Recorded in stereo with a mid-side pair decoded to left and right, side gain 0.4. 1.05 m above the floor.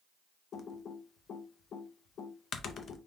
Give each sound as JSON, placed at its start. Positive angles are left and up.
{"t": 0.5, "sound": "typing on a keyboard", "azimuth_deg": 65, "distance_m": 0.5}